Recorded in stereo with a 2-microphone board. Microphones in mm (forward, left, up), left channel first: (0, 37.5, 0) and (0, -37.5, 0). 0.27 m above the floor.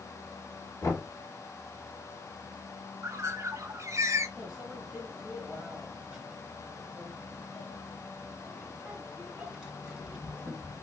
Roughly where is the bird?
Right.